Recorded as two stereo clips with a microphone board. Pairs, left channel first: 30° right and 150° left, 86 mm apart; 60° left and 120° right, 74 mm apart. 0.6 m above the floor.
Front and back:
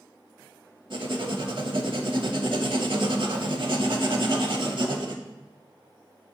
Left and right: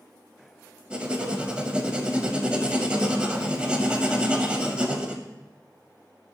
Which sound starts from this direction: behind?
Writing, at 0.9 s.